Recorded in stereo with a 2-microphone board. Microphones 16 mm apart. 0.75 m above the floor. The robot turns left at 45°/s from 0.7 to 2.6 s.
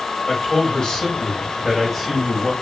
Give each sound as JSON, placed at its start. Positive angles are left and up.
{"t": 0.3, "sound": "a man speaking", "azimuth_deg": 75, "distance_m": 3.5}